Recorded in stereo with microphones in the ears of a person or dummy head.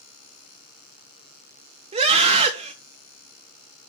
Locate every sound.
1.9 s a scream: 35° right (ahead or behind), 2 m